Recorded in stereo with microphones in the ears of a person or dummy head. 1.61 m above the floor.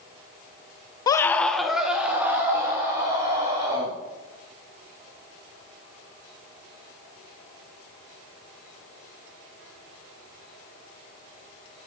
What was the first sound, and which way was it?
A scream, 35° left (ahead or behind).